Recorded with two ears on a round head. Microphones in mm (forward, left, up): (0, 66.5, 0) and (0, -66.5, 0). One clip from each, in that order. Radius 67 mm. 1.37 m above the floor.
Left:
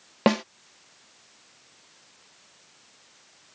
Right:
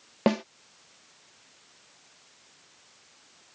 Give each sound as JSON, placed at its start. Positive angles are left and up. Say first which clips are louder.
{"t": 0.3, "sound": "a snare drum", "louder": "left 3 dB", "side_deg": 30}